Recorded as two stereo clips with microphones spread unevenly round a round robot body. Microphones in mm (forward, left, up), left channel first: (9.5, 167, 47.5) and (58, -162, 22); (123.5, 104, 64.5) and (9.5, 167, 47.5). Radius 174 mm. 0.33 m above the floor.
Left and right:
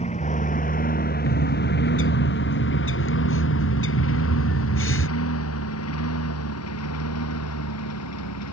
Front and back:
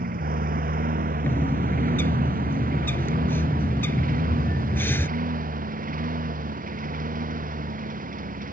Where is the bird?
45° left.